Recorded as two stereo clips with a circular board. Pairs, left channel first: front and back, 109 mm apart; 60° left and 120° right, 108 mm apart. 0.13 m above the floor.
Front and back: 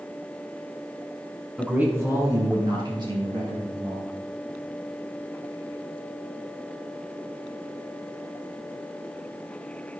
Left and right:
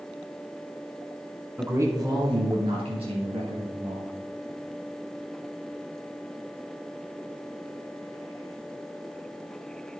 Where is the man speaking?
100° right, 1.2 m; by 4.1 s 140° right, 3.5 m.